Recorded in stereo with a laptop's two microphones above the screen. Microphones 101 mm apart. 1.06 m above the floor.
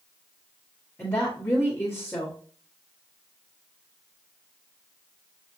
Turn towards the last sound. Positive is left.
turn(degrees=15)  # may be behind; listen again after turning